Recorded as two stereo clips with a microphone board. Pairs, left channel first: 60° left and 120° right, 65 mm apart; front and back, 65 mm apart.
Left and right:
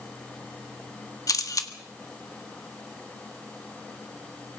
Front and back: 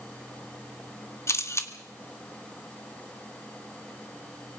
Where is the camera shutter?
40° left, 1.6 m.